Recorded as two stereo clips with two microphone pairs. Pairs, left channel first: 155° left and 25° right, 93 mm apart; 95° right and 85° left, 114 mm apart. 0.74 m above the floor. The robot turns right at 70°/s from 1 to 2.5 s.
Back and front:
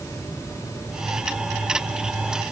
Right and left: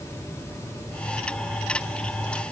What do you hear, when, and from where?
Only background noise.